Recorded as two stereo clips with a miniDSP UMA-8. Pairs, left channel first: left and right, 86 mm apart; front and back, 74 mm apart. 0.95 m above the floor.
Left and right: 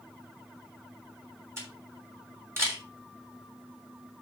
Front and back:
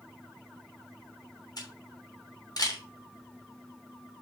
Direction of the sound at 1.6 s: 30° right.